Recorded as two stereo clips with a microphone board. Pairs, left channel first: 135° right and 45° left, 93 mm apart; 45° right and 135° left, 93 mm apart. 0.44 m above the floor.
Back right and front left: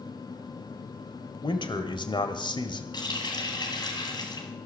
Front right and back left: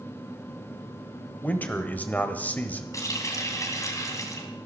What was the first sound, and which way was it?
A man speaking, 115° right.